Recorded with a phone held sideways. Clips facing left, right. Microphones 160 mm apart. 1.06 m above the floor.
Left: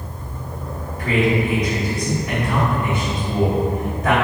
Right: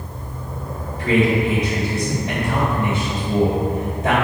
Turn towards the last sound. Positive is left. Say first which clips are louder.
# right 2 dB
turn(degrees=-35)  # may be behind; listen again after turning